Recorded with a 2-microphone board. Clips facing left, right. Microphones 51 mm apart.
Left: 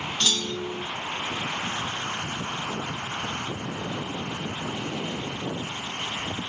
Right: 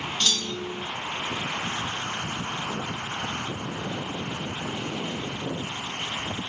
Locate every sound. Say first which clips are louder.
0.2 s a clunk: left 2 dB; 5° left (ahead or behind), 1.0 m